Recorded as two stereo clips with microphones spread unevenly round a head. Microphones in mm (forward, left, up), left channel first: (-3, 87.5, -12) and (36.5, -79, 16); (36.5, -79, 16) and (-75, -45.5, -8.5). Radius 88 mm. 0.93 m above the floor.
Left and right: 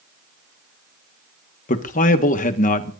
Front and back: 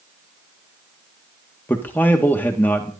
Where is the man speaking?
70° left, 1.6 m.